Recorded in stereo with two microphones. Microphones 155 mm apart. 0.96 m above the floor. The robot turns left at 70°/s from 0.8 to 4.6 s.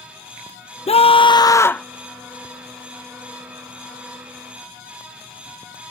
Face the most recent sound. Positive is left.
turn(degrees=180)